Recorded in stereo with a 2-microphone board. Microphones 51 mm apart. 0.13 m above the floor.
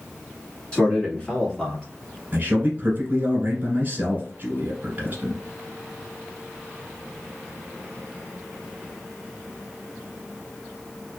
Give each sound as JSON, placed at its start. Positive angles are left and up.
{"t": 0.7, "sound": "a man speaking", "side_deg": 20, "distance_m": 1.5}
{"t": 2.3, "sound": "a man speaking", "side_deg": -35, "distance_m": 1.4}